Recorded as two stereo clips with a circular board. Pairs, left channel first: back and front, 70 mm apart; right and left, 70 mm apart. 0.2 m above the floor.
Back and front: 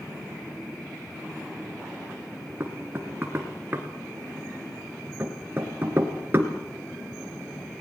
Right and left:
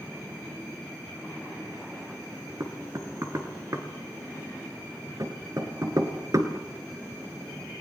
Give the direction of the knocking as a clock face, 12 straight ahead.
10 o'clock.